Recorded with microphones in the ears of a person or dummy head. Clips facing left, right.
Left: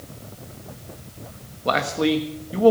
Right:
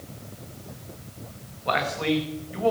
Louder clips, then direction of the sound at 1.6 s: Left 4 dB; 45° left (ahead or behind).